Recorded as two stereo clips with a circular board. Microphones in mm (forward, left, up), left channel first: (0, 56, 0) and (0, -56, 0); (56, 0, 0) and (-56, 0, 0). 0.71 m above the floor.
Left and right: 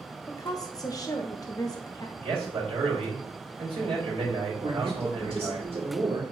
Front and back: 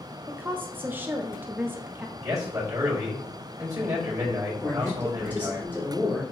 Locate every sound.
0.3 s a woman speaking: 120° left, 0.9 m
2.2 s a man speaking: 125° right, 3.5 m
4.6 s a man speaking: 80° right, 2 m